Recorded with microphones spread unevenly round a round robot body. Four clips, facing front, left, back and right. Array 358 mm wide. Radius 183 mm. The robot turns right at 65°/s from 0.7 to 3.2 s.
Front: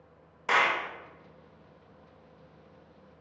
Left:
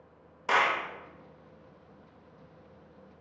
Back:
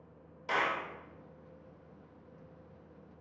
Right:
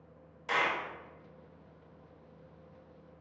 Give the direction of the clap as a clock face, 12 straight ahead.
10 o'clock.